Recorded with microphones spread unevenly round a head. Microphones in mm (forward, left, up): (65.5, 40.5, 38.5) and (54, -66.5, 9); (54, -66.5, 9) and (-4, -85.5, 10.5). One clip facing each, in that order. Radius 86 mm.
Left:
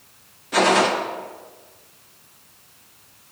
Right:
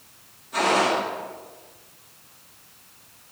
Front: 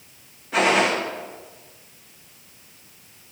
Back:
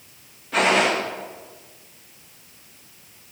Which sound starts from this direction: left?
A gunshot, at 0.5 s.